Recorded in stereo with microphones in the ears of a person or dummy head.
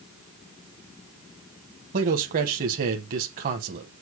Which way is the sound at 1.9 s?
50° right (ahead or behind).